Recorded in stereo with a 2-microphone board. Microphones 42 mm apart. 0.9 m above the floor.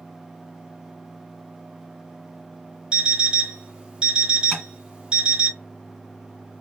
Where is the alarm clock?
20° right (ahead or behind), 0.9 m.